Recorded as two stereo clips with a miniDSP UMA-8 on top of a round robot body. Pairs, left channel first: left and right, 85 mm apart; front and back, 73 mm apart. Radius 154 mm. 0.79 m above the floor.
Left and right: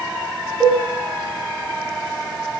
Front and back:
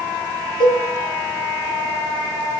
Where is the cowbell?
5° left, 8 m.